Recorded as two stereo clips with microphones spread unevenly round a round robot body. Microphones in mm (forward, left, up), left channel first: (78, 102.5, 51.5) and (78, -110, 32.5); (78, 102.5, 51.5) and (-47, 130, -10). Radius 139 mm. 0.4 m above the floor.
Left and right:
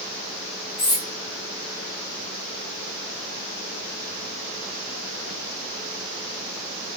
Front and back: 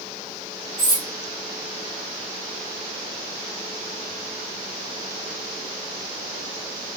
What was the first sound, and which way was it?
Cutlery clinking, 135° left.